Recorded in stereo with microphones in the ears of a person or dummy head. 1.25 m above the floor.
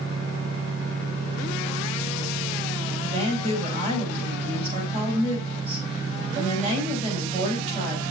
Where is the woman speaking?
40° right (ahead or behind), 5.5 m.